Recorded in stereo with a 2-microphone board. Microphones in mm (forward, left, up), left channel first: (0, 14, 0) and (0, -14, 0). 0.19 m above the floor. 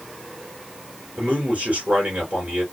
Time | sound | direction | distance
1.2 | a man speaking | 55° right (ahead or behind) | 3 m